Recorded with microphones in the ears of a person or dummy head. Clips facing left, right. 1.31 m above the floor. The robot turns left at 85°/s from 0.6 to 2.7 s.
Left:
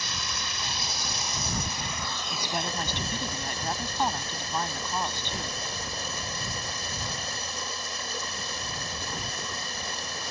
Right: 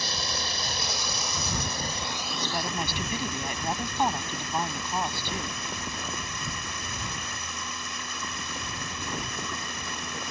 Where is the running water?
30° right; by 10.3 s 150° left.